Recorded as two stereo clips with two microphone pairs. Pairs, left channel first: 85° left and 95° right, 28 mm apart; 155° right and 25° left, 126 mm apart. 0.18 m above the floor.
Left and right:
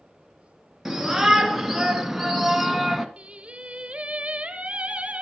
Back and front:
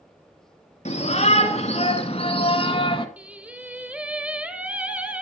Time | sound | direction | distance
0.8 | a shout | 175° right | 3 m
3.2 | singing | 55° right | 1.1 m